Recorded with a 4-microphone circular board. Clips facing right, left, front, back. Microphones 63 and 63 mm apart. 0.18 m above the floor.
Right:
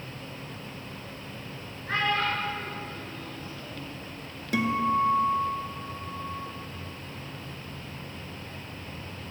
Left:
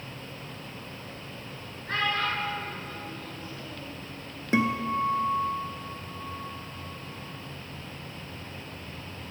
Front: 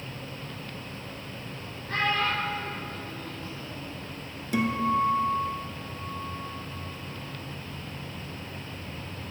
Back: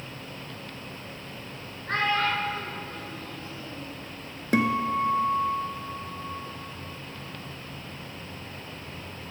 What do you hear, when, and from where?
1.9 s a child speaking: 170° right, 1.9 m; by 3.9 s straight behind, 3.5 m
4.5 s a guitar: 150° left, 0.7 m